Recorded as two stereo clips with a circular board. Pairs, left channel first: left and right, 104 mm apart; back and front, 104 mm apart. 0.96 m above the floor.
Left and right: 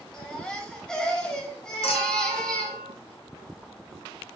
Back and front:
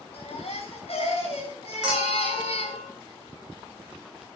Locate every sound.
0.1 s a baby crying: 175° left, 2.5 m
1.8 s a clink: 85° left, 3 m